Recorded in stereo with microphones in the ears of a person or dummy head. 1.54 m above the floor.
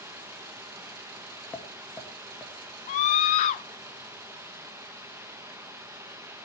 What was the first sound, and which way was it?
Running water, 10° right (ahead or behind).